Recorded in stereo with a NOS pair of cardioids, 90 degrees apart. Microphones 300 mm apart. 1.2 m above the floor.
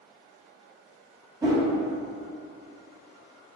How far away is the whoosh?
About 1.8 m.